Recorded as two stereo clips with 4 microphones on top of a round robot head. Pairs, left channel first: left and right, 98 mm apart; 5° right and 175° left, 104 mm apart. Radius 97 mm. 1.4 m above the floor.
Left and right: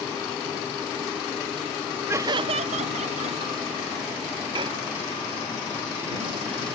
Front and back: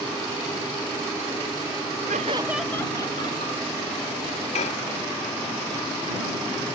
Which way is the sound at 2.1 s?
155° right.